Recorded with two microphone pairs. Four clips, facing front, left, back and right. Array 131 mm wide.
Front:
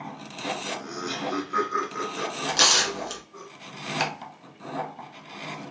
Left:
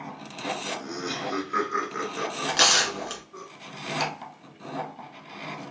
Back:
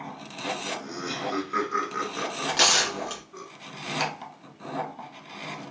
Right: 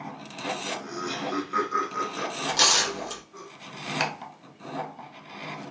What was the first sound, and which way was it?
Laughter, 20° right.